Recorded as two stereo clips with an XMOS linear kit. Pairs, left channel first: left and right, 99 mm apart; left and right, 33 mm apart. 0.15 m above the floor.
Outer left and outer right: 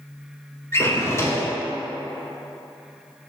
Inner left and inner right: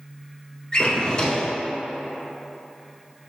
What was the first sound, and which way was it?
A drawer, 30° left (ahead or behind).